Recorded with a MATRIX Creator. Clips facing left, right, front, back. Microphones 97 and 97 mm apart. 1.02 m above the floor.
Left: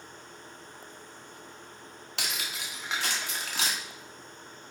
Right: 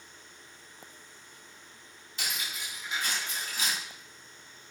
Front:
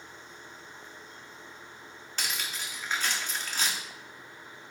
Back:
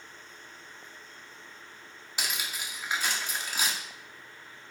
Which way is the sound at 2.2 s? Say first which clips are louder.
Left 1 dB, back 1 dB; 100° left.